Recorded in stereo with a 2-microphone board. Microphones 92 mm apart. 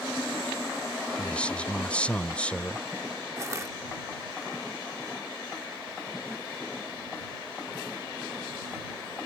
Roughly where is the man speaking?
Centre.